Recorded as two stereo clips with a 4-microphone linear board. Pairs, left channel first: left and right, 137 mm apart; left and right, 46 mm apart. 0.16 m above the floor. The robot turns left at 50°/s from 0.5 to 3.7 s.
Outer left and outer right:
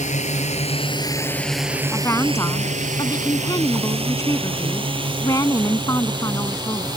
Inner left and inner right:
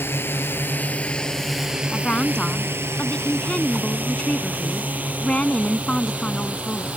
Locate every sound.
0.0 s a drone: 60° left (ahead or behind); by 7.0 s 30° right (ahead or behind)
1.9 s a woman speaking: 15° left (ahead or behind); by 6.9 s 25° left (ahead or behind)